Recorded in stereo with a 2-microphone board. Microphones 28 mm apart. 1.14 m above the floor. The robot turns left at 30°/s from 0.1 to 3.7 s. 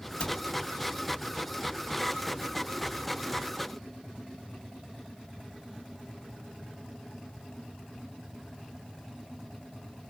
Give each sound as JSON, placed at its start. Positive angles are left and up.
{"t": 0.2, "sound": "a cupboard door", "side_deg": 40, "distance_m": 0.7}